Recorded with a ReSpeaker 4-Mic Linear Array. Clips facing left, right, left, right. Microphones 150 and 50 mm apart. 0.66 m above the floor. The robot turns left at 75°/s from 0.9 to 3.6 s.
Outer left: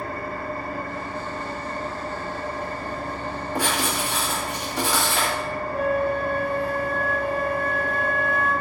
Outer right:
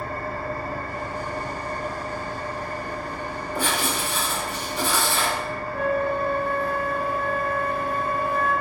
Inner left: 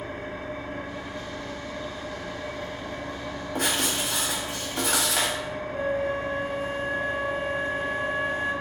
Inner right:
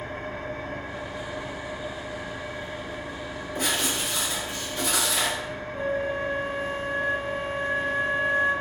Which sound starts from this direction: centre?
A flute, at 5.7 s.